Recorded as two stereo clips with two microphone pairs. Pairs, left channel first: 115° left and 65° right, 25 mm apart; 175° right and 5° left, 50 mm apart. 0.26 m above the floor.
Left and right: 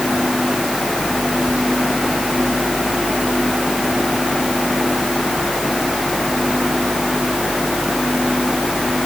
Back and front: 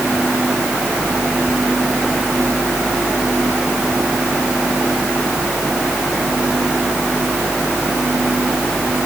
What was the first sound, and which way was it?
Only background noise.